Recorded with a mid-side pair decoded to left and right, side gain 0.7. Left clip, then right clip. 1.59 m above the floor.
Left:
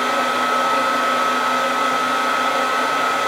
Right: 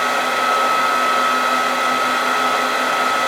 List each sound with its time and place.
0.0 s a fan: 30° right, 1.0 m